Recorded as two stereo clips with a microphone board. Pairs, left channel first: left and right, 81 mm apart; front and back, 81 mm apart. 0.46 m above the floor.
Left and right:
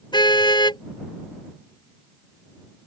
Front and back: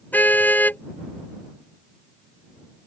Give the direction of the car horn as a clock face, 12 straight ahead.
10 o'clock.